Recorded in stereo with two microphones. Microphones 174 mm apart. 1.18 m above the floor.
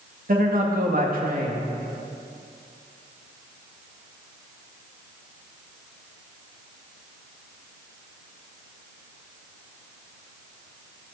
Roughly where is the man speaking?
Right.